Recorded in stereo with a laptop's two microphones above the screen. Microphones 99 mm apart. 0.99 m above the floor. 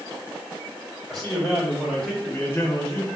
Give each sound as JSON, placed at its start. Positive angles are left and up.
{"t": 1.1, "sound": "a man speaking", "side_deg": 0, "distance_m": 1.6}